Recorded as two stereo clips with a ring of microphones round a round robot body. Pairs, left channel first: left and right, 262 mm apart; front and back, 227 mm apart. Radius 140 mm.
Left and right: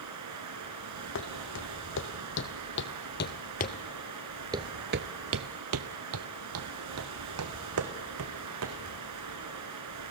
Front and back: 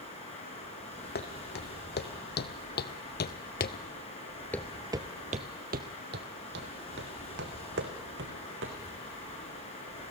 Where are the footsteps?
45° left, 2.5 m; by 8.8 s 130° right, 3 m.